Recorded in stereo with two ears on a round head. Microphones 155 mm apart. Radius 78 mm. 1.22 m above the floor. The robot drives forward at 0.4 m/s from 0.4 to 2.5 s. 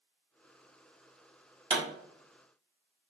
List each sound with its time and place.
1.7 s a pop: 35° right (ahead or behind), 0.9 m